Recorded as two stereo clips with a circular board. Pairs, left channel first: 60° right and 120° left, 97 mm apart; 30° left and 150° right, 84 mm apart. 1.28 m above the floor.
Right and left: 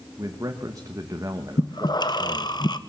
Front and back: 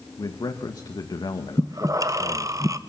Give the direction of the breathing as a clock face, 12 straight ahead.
3 o'clock.